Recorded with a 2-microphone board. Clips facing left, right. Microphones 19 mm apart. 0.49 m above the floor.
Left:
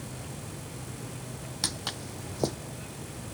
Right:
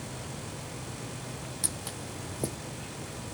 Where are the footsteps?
40° left (ahead or behind).